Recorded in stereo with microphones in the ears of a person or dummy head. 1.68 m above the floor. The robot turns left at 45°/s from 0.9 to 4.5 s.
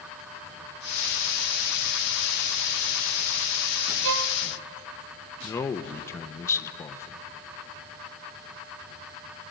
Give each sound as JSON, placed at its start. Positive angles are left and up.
{"t": 4.0, "sound": "a violin", "side_deg": -70, "distance_m": 1.0}
{"t": 5.4, "sound": "a man speaking", "side_deg": 15, "distance_m": 1.2}